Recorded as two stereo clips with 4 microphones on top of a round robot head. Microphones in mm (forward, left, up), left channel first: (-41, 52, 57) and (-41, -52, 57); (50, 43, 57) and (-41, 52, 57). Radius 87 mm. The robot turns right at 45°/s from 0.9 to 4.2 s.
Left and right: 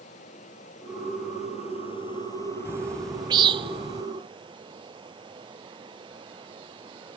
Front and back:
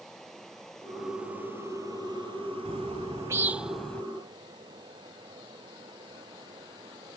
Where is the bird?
150° right; by 4.0 s 85° right.